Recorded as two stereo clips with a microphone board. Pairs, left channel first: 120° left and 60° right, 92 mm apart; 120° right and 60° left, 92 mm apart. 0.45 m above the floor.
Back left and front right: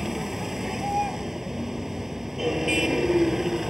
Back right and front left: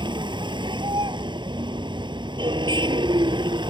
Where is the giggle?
I don't hear a giggle.